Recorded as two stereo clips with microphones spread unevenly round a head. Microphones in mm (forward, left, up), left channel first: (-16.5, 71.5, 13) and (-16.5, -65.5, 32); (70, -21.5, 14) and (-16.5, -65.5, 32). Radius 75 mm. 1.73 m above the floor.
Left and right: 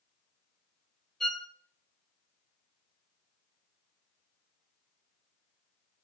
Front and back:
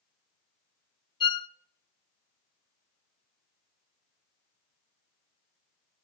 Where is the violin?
5° right, 0.5 m.